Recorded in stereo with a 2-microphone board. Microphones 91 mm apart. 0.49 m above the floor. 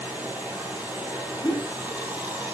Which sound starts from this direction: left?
A whoosh, at 1.4 s.